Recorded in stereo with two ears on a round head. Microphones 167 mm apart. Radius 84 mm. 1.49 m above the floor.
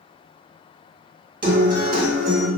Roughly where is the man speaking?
No man speaking in this recording.